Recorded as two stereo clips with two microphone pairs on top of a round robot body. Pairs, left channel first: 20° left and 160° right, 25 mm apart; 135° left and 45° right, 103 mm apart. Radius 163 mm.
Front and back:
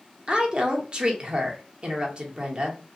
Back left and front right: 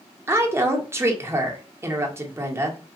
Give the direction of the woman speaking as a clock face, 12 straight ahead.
4 o'clock.